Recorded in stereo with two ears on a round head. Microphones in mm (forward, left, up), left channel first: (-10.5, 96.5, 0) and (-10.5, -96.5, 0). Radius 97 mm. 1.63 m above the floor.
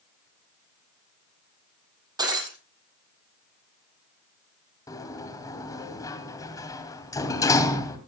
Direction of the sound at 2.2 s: 20° right (ahead or behind).